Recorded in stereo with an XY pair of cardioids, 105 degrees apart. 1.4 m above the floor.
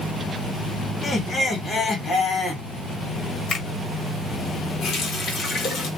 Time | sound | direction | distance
1.0 | laughter | 35° left | 1.5 m
3.5 | a finger snap | 45° left | 1.5 m
4.8 | a running tap | 60° left | 1.1 m